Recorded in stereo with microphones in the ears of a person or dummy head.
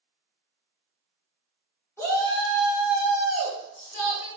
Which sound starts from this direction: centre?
A shout, at 2.0 s.